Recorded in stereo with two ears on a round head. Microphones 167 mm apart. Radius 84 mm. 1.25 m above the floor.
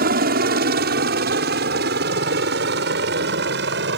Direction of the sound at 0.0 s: 50° right (ahead or behind).